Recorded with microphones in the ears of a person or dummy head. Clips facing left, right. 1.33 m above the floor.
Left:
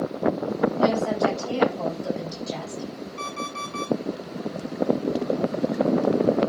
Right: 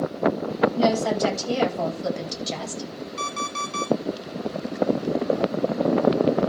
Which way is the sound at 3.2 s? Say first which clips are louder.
Right 1 dB; 50° right (ahead or behind).